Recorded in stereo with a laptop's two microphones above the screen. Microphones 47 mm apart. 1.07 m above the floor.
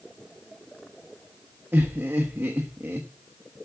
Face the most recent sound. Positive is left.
turn(degrees=-50)  # may be behind; listen again after turning